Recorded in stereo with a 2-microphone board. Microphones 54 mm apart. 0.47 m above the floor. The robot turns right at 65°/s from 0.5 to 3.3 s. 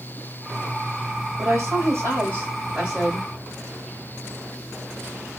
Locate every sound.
1.4 s a woman speaking: 100° right, 2.5 m; by 3.3 s 25° left, 2.5 m